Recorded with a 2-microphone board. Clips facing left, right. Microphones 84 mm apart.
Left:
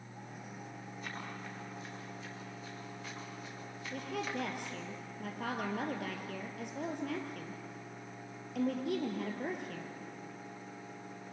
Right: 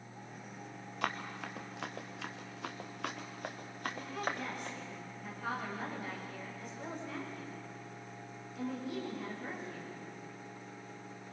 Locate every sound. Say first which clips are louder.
1.0 s running footsteps: right 7 dB; 75° right (ahead or behind), 3 m; by 4.8 s 45° right (ahead or behind), 3.5 m
3.9 s a woman speaking: left 3 dB; 65° left (ahead or behind), 4 m